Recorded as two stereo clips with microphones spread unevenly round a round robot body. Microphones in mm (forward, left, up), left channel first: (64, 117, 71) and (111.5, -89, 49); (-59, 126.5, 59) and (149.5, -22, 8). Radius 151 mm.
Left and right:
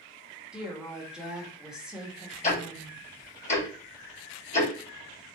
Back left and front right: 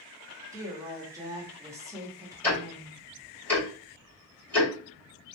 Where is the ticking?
50° left, 1.9 m.